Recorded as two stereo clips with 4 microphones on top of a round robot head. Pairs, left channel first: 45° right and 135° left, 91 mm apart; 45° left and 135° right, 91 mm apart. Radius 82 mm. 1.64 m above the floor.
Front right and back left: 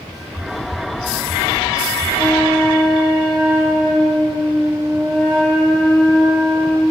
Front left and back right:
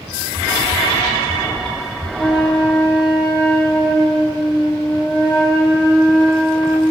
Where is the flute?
80° left, 1.3 m.